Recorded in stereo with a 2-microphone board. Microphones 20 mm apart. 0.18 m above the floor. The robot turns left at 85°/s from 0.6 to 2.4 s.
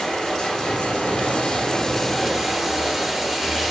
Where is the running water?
130° left, 2 m; by 3.7 s 20° right, 2 m.